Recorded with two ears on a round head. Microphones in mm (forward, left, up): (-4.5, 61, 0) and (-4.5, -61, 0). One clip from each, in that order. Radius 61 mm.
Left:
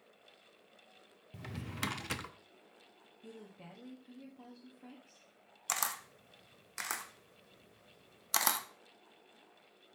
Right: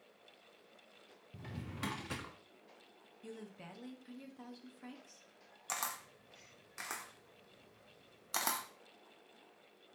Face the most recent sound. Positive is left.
turn(degrees=35)  # may be behind; listen again after turning